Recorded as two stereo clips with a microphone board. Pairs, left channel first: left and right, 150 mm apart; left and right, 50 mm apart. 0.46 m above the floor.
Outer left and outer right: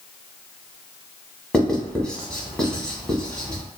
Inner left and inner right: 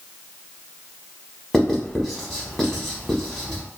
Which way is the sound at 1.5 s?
5° left (ahead or behind).